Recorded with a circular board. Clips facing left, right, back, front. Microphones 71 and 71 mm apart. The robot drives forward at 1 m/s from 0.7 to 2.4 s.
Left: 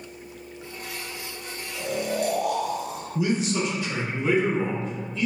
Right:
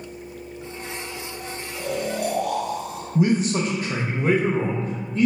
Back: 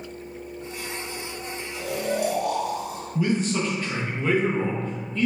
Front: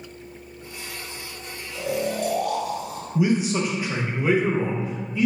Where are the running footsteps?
No running footsteps in this recording.